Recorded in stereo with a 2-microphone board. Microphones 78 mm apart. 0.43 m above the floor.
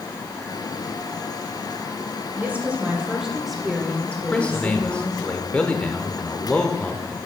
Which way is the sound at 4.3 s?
15° left (ahead or behind).